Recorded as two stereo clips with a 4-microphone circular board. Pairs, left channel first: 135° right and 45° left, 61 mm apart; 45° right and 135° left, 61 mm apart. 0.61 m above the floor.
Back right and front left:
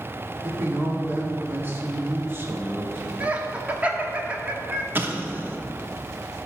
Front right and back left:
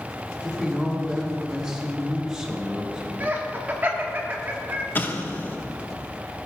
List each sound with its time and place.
0.4 s a man speaking: 65° left, 1.4 m
3.2 s laughter: 95° left, 1.2 m
5.0 s an explosion: straight ahead, 0.8 m